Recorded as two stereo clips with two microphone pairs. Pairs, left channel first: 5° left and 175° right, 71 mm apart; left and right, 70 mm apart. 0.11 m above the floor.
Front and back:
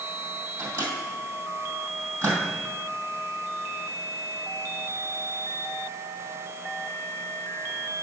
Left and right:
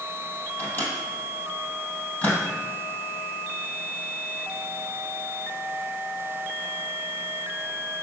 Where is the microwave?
145° left, 3 m.